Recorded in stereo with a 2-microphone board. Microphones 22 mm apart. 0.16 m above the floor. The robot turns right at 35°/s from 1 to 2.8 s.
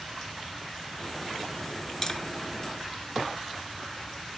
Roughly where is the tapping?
Left.